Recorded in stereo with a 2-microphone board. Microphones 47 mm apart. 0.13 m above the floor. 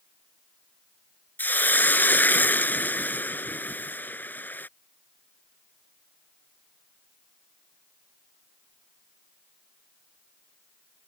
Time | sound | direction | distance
1.4 | a hiss | 45° left (ahead or behind) | ?